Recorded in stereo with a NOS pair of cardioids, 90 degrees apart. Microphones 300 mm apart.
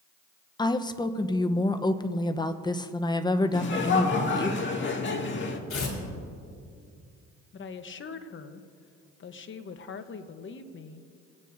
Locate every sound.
0.6 s a woman speaking: 15° left, 0.8 m
3.5 s laughter: 40° left, 2 m
5.7 s tearing paper: 45° left, 4 m
7.5 s a woman speaking: 40° left, 1.0 m